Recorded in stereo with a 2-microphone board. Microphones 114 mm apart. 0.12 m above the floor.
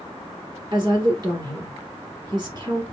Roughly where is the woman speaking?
Right.